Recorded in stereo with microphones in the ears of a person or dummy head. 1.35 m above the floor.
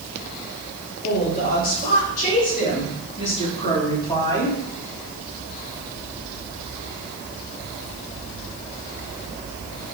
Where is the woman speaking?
55° left (ahead or behind), 4.5 m; by 4.6 s 10° left (ahead or behind), 3.5 m.